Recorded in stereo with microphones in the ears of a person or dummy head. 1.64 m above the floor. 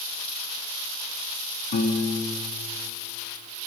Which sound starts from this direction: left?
A piano, at 1.7 s.